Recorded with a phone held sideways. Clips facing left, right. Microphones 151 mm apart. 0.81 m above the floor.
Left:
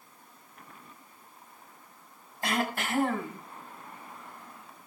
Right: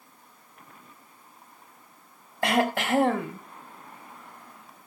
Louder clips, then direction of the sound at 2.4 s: Right 7 dB; 80° right.